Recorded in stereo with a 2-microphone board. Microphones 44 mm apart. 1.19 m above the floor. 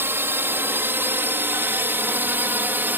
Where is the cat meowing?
No cat meowing in this recording.